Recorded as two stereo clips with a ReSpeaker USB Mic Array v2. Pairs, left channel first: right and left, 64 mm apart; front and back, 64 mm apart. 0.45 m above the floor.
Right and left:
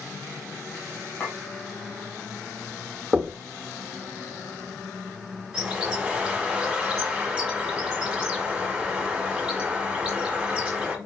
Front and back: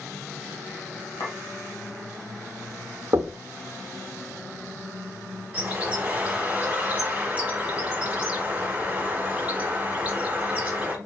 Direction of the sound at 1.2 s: 15° right.